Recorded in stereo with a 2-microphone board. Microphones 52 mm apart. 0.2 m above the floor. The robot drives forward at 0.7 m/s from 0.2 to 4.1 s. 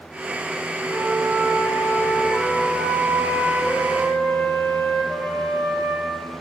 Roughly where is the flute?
Right.